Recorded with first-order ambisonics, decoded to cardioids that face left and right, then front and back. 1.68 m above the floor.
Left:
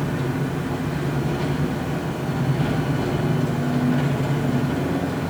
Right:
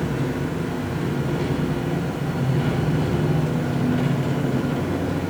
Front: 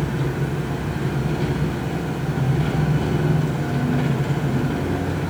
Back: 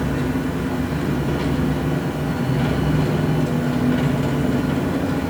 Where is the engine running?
170° right, 4 m.